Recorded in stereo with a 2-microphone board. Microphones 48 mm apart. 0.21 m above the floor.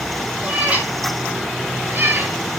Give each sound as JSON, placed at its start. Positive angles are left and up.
{"t": 0.4, "sound": "a cat meowing", "side_deg": -30, "distance_m": 3.5}